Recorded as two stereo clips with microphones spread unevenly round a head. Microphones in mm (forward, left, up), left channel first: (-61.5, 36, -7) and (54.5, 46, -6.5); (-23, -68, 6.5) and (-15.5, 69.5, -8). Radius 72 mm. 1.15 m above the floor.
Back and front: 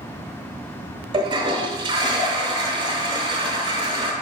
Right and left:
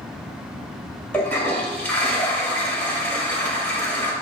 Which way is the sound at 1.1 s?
25° right.